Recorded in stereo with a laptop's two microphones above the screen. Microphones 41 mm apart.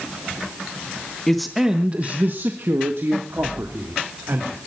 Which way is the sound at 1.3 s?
10° left (ahead or behind).